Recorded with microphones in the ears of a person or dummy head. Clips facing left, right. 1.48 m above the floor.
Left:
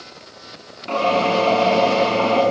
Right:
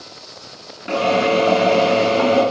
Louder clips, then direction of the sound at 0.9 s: Right 2 dB; 20° right (ahead or behind).